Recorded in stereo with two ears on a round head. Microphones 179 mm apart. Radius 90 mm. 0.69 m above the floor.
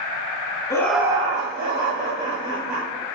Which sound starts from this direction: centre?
Laughter, at 0.7 s.